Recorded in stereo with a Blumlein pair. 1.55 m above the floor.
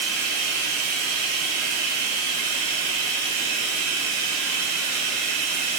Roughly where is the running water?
Ahead right.